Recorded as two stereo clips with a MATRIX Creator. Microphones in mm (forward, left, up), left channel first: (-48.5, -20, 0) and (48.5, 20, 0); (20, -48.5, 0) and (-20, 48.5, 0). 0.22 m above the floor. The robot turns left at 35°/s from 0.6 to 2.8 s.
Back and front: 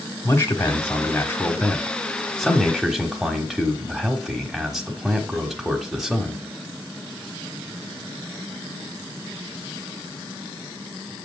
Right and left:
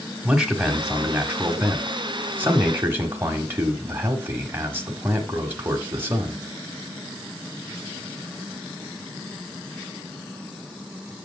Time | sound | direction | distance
0.2 | a man speaking | 175° right | 1.2 m